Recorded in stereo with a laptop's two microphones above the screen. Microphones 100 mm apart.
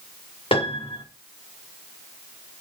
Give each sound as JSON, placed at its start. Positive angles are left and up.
{"t": 0.5, "sound": "a piano", "side_deg": 70, "distance_m": 1.4}